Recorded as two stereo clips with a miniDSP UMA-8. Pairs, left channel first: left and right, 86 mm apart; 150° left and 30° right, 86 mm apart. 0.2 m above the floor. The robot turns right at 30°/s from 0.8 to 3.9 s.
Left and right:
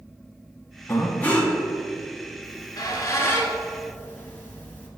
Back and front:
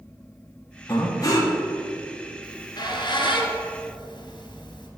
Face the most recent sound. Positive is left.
turn(degrees=160)